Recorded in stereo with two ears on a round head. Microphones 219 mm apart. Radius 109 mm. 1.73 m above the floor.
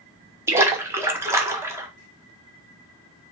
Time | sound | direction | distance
0.5 | a splash | 10° right (ahead or behind) | 1.1 m